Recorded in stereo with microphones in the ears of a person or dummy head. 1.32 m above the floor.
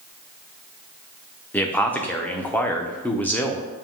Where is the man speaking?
5° left (ahead or behind), 0.6 m.